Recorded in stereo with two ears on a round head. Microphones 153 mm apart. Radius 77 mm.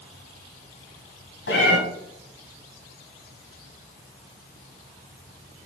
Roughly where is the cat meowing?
Left.